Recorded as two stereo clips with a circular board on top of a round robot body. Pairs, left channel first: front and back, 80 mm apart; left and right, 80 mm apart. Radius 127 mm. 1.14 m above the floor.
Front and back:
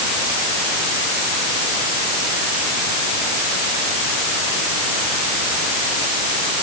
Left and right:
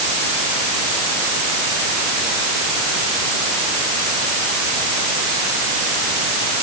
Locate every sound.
Only background noise.